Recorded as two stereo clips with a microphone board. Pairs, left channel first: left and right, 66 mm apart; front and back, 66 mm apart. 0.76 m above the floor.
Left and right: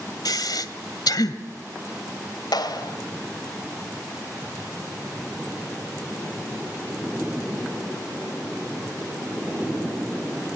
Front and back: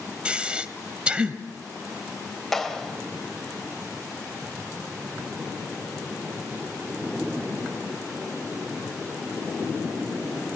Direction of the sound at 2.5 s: 85° left.